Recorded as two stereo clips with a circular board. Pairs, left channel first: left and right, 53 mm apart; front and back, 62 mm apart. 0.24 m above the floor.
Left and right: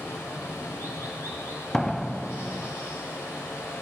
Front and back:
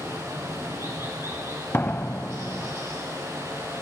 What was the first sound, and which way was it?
Running water, 130° left.